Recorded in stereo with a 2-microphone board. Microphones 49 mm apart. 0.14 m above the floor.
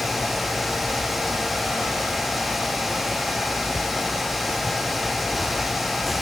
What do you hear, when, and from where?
Only background noise.